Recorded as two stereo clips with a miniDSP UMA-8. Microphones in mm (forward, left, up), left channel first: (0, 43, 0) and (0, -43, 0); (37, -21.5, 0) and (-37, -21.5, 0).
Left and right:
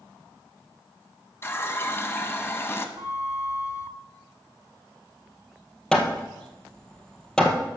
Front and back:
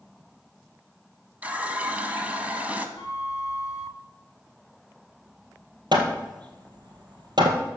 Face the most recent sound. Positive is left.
turn(degrees=170)